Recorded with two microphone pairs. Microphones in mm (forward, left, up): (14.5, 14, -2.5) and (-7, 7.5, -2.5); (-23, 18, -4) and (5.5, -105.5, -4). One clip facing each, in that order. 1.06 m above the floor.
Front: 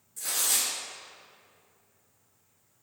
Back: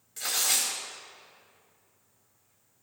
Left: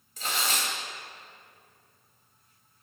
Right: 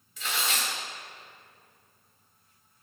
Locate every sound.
0.2 s tearing paper: 155° left, 4 m